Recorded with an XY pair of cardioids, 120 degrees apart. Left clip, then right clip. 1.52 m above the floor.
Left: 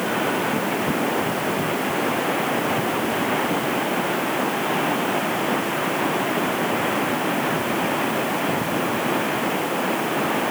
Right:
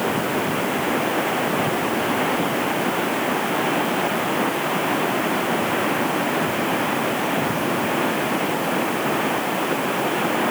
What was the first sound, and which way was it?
Only background noise.